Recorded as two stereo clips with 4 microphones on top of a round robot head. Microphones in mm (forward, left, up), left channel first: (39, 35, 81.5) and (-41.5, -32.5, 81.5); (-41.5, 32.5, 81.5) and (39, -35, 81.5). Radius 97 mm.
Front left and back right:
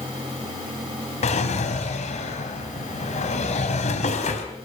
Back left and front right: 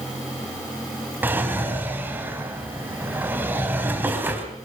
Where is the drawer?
35° left, 3.5 m.